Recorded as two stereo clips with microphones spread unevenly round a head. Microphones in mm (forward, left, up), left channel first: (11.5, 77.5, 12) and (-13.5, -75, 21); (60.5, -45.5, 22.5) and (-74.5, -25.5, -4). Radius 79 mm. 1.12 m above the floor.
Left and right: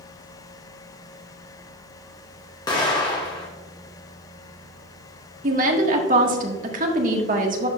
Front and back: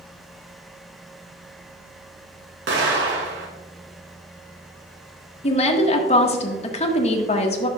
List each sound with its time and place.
2.7 s an explosion: 150° left, 2 m
5.4 s a woman speaking: 55° right, 1.5 m